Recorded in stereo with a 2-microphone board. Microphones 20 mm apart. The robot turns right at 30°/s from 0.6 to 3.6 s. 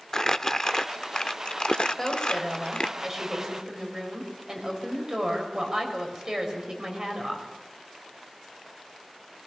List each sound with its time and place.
0.1 s crumpling: 25° left (ahead or behind), 0.7 m; by 3.0 s 40° left (ahead or behind), 0.7 m
2.0 s a woman speaking: 160° left, 5 m; by 7.5 s 150° right, 5 m